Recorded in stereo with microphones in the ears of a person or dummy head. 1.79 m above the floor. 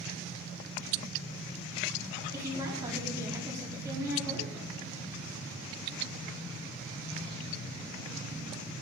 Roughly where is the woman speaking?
Centre.